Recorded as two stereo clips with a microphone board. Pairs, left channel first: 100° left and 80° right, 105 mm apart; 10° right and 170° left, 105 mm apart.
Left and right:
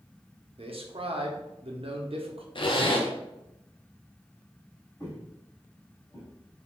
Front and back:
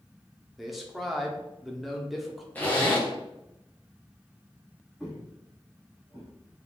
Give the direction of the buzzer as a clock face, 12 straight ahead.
I don't hear a buzzer.